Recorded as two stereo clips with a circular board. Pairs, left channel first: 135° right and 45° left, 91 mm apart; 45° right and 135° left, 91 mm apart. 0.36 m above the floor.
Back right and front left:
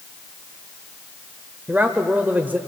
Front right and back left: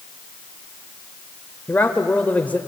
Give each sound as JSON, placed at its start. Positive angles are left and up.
{"t": 1.7, "sound": "a man speaking", "azimuth_deg": 5, "distance_m": 1.0}